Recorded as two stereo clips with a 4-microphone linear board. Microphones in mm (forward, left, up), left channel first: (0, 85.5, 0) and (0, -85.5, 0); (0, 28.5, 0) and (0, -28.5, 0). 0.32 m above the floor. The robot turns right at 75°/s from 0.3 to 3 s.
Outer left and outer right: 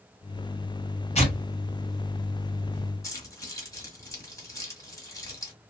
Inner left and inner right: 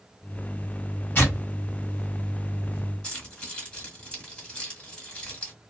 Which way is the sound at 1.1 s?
40° left (ahead or behind).